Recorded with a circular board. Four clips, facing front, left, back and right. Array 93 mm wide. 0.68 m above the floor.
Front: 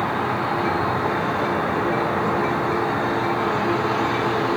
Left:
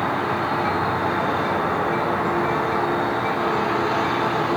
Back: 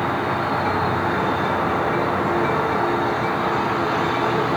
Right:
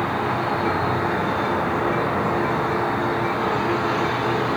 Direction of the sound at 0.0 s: Straight behind.